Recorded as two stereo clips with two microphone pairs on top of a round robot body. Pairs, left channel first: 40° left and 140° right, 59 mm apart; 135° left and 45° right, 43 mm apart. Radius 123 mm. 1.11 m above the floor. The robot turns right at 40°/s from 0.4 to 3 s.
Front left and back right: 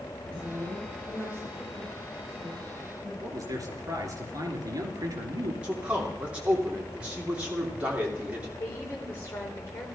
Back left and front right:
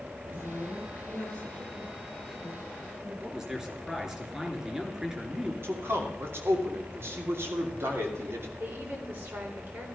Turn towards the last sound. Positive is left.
turn(degrees=-15)